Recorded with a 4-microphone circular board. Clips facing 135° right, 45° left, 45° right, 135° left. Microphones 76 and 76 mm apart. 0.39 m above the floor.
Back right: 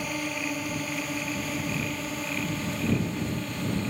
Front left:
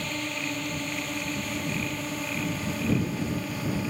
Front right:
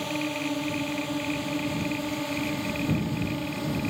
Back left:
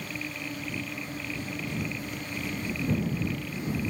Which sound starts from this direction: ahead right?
A drone, at 0.0 s.